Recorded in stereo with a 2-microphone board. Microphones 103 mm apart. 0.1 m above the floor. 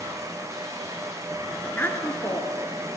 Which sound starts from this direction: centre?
A woman speaking, at 1.6 s.